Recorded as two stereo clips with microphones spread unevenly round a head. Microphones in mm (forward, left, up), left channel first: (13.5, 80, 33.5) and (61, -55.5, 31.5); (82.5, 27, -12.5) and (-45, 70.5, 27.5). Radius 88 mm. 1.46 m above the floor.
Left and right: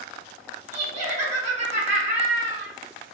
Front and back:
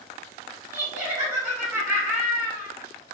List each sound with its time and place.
0.7 s laughter: 120° right, 1.9 m